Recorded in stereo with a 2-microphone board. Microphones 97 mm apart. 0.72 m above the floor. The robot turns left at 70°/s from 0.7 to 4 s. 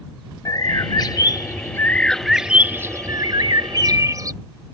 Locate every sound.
0.5 s a bird: 110° left; by 4.3 s 120° right